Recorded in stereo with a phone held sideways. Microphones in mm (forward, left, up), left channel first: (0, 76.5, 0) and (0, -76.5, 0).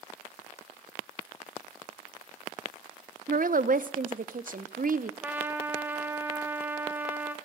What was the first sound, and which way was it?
A woman speaking, 65° right (ahead or behind).